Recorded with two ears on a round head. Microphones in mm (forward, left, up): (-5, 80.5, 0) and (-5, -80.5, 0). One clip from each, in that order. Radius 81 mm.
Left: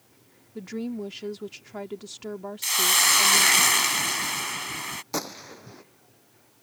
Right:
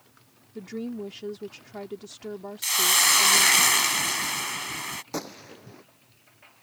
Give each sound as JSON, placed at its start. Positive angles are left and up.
{"t": 0.6, "sound": "a woman speaking", "side_deg": 20}
{"t": 2.6, "sound": "a hiss", "side_deg": 0}
{"t": 5.1, "sound": "a gunshot", "side_deg": 25}